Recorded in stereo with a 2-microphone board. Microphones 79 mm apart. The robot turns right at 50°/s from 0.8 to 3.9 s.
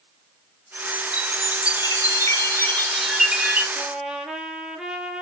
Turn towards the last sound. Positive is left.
turn(degrees=-5)  # may be behind; listen again after turning